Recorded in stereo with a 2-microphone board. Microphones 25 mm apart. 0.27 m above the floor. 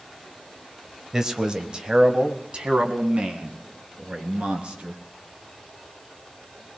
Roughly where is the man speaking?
Right.